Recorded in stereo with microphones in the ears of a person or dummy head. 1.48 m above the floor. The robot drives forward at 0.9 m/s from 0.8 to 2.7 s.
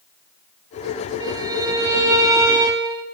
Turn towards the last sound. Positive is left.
turn(degrees=-15)  # may be behind; listen again after turning